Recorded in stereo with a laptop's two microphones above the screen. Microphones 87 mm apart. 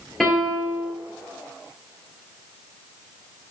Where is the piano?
5° left (ahead or behind), 3.5 m.